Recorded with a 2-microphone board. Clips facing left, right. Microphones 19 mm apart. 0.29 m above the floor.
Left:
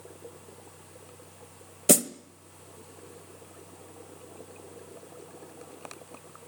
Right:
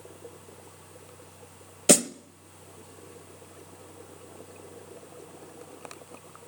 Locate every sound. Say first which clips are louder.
1.9 s a snare drum: right 2 dB; 30° right (ahead or behind), 0.5 m